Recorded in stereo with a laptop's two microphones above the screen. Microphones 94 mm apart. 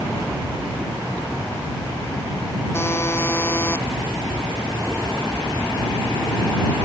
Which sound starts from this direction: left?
A buzzer, at 2.7 s.